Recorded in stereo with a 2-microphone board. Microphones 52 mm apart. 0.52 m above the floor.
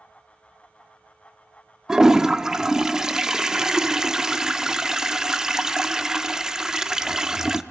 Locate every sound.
1.9 s a toilet flushing: 15° right (ahead or behind), 0.6 m